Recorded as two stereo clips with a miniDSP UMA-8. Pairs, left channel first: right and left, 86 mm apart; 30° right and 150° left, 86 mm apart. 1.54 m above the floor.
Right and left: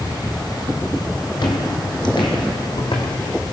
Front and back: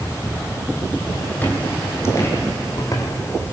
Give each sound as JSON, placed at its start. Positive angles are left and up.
{"t": 1.4, "sound": "footsteps", "azimuth_deg": -100, "distance_m": 3.0}